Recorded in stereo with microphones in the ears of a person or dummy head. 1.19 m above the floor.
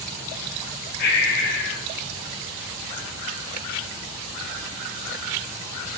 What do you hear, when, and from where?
1.0 s breathing: 55° left (ahead or behind), 4 m